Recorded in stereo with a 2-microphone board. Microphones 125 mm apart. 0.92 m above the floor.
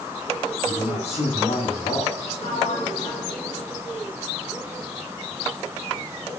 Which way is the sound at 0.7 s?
65° left (ahead or behind).